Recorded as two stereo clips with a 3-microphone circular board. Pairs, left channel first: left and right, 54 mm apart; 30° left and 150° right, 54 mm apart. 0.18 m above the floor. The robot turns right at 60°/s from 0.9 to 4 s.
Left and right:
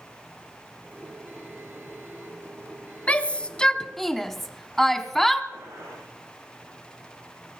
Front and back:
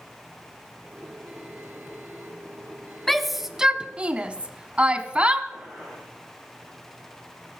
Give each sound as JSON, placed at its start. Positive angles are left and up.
{"t": 3.1, "sound": "a shout", "azimuth_deg": 110, "distance_m": 1.1}
{"t": 5.5, "sound": "a gunshot", "azimuth_deg": -70, "distance_m": 9.5}